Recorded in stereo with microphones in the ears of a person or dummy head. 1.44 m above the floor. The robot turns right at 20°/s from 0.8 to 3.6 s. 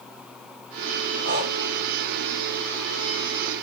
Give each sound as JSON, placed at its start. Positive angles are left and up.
{"t": 1.2, "sound": "breathing", "side_deg": -80, "distance_m": 5.5}